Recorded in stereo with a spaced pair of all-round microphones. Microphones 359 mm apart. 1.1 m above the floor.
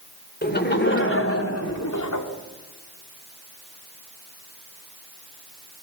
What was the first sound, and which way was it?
Laughter, 25° left (ahead or behind).